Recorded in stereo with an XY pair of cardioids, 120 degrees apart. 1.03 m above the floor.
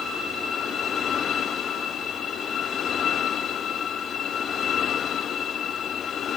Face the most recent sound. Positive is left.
No sound to turn to.